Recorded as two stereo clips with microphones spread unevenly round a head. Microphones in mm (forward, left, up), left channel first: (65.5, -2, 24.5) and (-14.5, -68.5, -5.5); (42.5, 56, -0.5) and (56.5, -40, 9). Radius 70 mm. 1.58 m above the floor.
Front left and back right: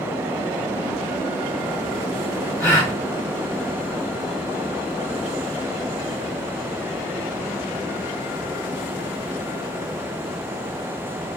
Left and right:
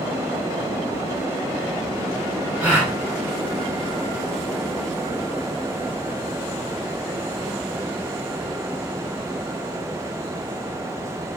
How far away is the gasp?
About 2.5 m.